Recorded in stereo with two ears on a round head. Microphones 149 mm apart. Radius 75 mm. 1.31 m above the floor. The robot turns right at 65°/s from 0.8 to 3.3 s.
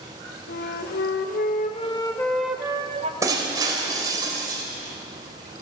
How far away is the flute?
About 0.8 m.